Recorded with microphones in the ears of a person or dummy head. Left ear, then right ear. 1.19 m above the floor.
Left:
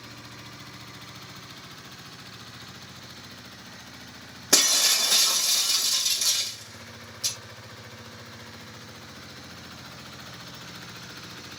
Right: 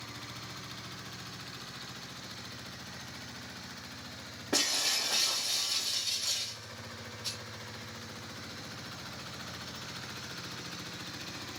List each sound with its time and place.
4.5 s breaking glass: 75° left (ahead or behind), 1.2 m